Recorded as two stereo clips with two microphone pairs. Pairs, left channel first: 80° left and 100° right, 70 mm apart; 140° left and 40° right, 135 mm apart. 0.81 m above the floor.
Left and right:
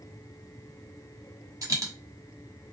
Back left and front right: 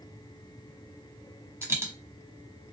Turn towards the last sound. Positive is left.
turn(degrees=-105)